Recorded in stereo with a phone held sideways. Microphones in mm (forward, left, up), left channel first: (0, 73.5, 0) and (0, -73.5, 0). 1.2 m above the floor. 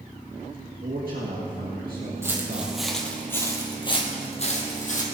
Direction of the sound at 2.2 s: 15° right (ahead or behind).